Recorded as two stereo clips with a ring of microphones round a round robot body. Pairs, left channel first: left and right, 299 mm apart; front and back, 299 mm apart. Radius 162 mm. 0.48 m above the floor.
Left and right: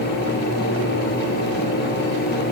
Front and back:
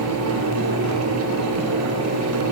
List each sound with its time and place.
Only background noise.